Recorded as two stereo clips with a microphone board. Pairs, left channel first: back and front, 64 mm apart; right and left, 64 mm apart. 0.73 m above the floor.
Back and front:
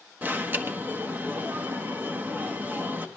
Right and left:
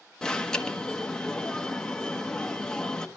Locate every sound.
0.2 s an alarm: 20° right, 1.2 m